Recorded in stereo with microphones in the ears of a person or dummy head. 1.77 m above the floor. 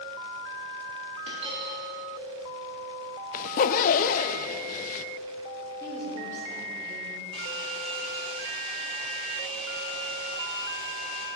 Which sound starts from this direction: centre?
A woman speaking, at 5.8 s.